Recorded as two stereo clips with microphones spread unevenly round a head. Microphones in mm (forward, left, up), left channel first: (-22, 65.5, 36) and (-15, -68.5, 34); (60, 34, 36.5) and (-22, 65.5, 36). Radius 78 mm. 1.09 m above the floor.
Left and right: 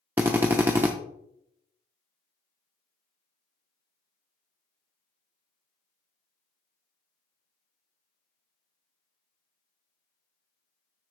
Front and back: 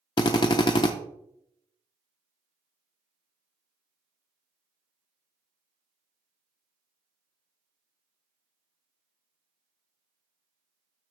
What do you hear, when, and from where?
0.2 s a drill: 15° right, 0.8 m